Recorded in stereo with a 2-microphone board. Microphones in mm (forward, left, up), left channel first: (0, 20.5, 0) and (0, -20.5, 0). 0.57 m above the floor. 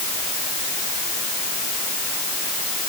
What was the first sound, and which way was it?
Only background noise.